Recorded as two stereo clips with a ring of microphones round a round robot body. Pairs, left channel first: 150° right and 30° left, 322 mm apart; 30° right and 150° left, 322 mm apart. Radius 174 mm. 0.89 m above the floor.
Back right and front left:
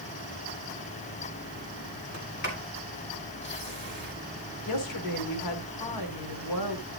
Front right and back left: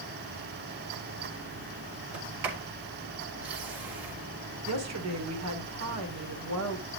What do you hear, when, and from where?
2.1 s a sliding door: 155° left, 4 m
4.7 s a woman speaking: 170° right, 2.5 m